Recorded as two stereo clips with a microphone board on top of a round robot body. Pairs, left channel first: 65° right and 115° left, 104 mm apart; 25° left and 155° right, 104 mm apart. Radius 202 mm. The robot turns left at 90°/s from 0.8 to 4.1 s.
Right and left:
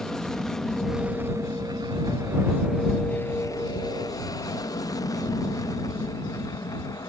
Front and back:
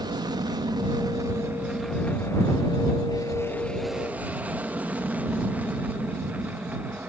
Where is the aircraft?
150° right; by 7.1 s 90° right.